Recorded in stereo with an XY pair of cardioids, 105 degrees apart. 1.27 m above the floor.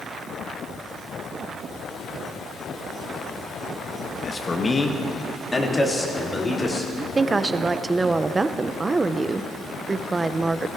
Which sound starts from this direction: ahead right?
A woman speaking, at 7.0 s.